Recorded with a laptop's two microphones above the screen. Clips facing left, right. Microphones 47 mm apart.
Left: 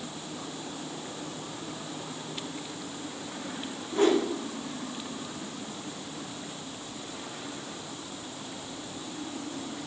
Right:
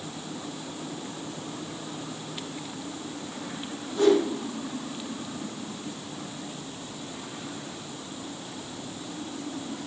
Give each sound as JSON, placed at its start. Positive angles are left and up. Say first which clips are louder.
{"t": 3.9, "sound": "a whoosh", "louder": "right 3 dB", "side_deg": 35, "distance_m": 3.0}